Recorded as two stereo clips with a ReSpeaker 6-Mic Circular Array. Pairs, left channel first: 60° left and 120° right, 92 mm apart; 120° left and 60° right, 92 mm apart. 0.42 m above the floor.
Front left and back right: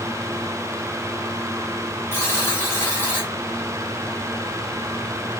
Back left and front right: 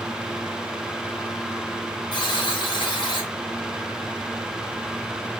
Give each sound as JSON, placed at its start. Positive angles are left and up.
{"t": 2.1, "sound": "a buzzer", "azimuth_deg": 120, "distance_m": 1.9}